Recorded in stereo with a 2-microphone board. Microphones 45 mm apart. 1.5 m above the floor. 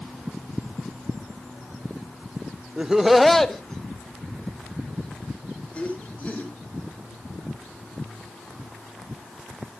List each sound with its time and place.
2.8 s laughter: 20° right (ahead or behind), 0.6 m; by 6.5 s 35° left (ahead or behind), 3 m